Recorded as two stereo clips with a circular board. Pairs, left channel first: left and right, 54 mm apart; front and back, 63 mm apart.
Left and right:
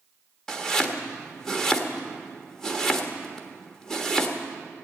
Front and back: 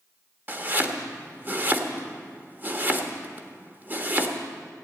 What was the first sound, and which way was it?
Chopping, 160° left.